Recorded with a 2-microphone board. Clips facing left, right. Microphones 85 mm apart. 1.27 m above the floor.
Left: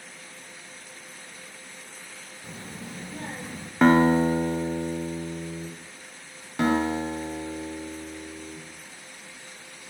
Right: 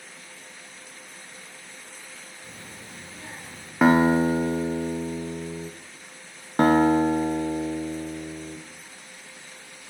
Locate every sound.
2.4 s a child speaking: 20° left (ahead or behind), 0.8 m; by 3.7 s 60° left (ahead or behind), 1.0 m
3.8 s a guitar: 5° right (ahead or behind), 0.6 m
6.6 s a guitar: 45° right (ahead or behind), 0.7 m